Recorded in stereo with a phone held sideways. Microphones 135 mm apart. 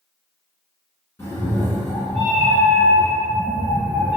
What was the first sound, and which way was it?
A cat meowing, 20° left (ahead or behind).